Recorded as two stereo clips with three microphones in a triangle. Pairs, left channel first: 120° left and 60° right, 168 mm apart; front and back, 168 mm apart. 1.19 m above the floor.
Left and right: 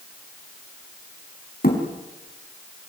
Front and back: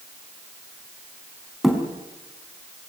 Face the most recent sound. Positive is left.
turn(degrees=90)